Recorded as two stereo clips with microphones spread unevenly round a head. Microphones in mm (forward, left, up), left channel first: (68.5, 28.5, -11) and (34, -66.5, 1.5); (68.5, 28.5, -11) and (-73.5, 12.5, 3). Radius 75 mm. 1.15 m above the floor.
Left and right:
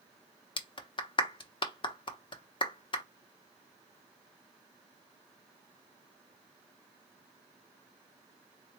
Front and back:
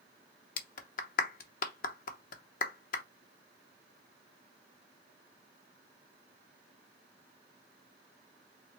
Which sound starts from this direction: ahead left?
A clap, at 0.6 s.